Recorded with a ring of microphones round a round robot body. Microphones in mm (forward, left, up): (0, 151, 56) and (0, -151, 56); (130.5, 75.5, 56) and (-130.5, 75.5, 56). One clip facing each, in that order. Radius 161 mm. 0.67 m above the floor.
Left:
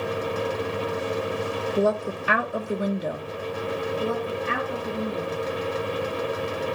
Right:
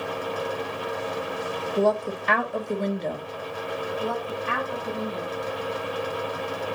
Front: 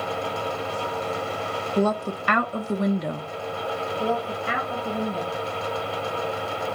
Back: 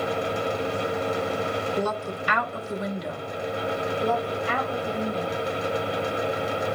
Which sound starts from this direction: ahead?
A woman speaking, at 1.8 s.